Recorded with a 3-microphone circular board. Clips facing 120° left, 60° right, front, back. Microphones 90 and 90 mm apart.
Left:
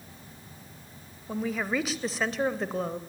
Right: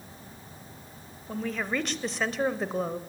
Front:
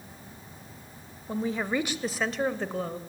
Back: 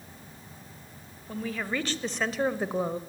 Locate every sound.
1.3 s a woman speaking: 45° left, 1.3 m; by 3.0 s 135° right, 1.1 m